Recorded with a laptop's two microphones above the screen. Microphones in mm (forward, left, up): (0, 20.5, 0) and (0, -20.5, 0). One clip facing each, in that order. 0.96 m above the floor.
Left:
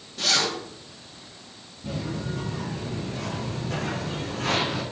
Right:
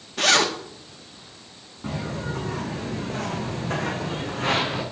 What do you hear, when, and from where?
0.2 s a zipper: 80° right, 1.5 m
1.8 s footsteps: 75° right (ahead or behind), 4 m; by 4.8 s 25° right (ahead or behind), 3 m